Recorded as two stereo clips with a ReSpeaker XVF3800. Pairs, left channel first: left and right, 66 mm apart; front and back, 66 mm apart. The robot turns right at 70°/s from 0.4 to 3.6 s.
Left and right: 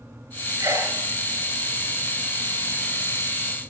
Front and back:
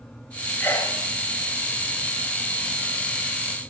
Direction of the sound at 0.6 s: 55° right.